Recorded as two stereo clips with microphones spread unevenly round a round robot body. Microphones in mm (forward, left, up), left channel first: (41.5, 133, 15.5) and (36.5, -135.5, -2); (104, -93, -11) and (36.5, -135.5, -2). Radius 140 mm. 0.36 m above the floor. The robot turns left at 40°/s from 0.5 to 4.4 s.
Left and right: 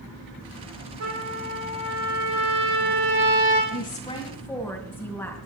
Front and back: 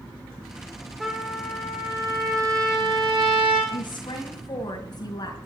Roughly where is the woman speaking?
Ahead left.